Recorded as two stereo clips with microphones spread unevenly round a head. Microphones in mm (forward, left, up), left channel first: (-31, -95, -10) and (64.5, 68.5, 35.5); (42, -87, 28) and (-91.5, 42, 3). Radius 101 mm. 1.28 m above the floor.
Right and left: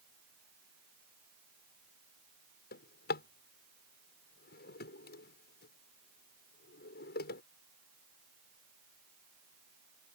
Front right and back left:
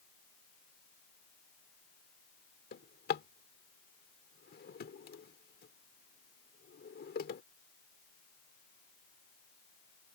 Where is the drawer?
80° right.